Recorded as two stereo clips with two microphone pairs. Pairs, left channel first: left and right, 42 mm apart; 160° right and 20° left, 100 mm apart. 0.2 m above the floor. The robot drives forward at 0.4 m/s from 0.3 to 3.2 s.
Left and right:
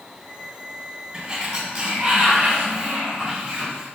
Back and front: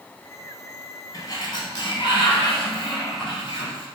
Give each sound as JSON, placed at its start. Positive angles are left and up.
{"t": 1.1, "sound": "a sliding door", "azimuth_deg": -140, "distance_m": 0.8}